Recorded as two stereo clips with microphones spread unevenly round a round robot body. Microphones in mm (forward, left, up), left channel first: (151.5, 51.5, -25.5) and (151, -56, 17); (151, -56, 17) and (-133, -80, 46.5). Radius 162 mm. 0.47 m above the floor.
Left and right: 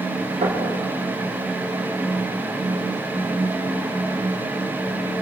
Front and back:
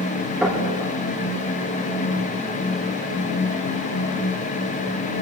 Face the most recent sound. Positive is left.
turn(degrees=-90)